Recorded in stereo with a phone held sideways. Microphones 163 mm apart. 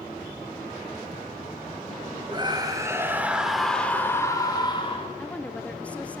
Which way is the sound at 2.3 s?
30° right (ahead or behind).